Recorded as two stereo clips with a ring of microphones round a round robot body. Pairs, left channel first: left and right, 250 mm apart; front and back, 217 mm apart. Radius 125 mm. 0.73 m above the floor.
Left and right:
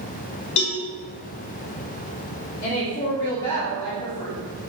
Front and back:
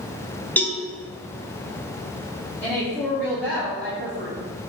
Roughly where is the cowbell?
Left.